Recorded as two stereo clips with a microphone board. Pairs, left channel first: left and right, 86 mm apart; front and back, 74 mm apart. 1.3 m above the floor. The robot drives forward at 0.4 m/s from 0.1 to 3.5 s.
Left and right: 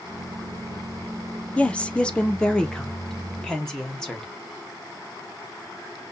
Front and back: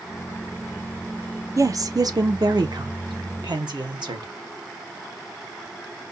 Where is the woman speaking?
160° left, 0.6 m; by 4.3 s 175° left, 1.3 m.